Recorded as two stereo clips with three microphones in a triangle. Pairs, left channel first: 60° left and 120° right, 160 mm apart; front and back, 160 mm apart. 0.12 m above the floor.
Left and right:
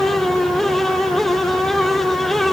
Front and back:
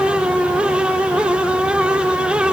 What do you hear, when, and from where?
Only background noise.